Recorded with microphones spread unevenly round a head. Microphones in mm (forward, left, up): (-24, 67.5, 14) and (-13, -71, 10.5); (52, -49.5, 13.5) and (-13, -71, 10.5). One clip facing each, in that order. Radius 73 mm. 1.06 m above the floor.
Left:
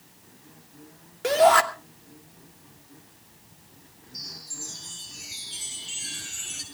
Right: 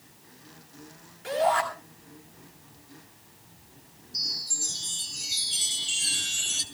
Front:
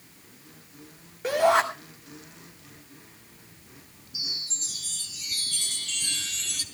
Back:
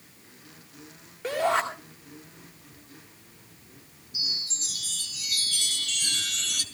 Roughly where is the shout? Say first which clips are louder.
Left 7 dB, front 4 dB; left.